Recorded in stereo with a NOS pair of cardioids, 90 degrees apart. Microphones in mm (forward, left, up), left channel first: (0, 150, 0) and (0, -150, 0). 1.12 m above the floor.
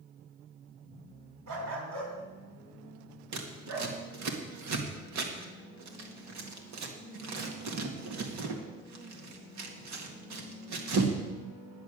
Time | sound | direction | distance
1.5 | a dog barking | 70° right | 3 m
3.3 | scissors | 70° right | 1.9 m